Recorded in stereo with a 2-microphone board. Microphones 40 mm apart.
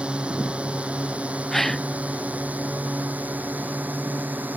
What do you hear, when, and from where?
0.0 s a drone: 30° right (ahead or behind); by 4.6 s 50° right (ahead or behind)
1.5 s a gasp: 5° left (ahead or behind)